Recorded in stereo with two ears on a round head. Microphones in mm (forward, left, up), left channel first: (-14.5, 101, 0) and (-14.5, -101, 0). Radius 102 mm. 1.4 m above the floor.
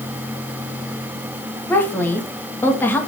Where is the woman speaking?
10° left (ahead or behind), 2.5 m.